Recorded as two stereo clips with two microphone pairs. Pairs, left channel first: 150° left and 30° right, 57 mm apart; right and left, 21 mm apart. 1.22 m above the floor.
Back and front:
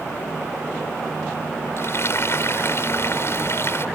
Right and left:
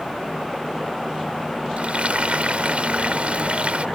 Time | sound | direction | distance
1.8 | frying | 110° left | ?